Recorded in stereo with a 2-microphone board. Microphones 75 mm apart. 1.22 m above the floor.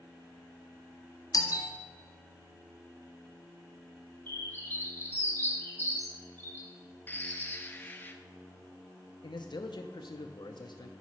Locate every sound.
1.3 s a doorbell: 50° left (ahead or behind), 0.8 m
4.3 s a bird: 30° left (ahead or behind), 1.3 m
7.1 s a bird: 25° left (ahead or behind), 0.7 m
9.2 s a man speaking: 75° left (ahead or behind), 0.6 m